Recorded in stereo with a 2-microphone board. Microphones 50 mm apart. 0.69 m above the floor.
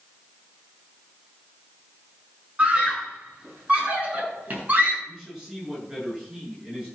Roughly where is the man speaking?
Centre.